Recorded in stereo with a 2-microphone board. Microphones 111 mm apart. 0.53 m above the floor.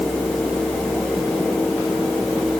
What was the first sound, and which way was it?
Only background noise.